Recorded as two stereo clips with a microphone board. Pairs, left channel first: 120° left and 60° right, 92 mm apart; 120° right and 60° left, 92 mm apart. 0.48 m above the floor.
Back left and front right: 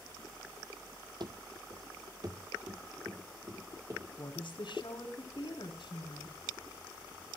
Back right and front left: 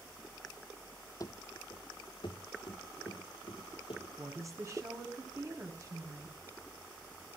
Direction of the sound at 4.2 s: 110° left.